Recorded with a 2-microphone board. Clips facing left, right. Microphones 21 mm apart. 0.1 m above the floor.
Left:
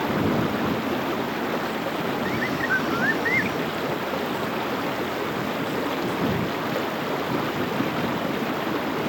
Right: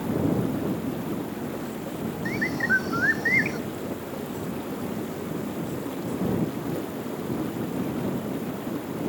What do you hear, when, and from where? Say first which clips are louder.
0.0 s running water: left 3 dB; 55° left (ahead or behind)
2.2 s a bird: right 3 dB; 10° right (ahead or behind)